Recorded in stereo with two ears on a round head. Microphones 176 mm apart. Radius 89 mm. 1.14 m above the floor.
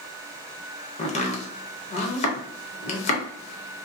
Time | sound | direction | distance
1.0 | chopping | 35° left (ahead or behind) | 0.6 m